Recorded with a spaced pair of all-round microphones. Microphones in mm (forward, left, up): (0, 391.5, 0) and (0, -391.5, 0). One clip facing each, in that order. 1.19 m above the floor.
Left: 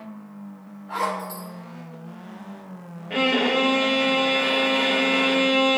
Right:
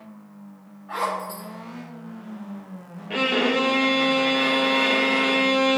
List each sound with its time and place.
0.9 s a zipper: 70° right (ahead or behind), 4 m
3.1 s a violin: 45° right (ahead or behind), 1.0 m